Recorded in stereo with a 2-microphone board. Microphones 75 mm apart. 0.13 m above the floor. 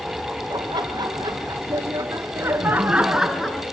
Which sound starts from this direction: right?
Laughter, at 0.5 s.